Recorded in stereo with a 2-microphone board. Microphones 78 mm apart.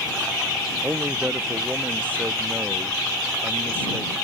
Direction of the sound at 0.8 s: 25° right (ahead or behind).